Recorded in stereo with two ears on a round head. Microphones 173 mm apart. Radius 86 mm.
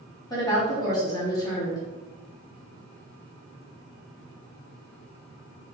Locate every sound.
0.3 s a woman speaking: 20° left (ahead or behind), 1.4 m